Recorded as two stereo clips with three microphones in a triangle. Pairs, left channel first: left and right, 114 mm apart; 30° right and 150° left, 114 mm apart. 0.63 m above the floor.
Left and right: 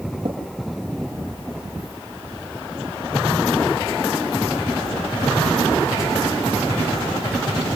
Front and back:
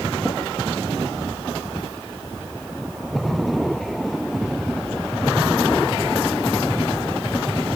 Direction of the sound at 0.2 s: 130° right.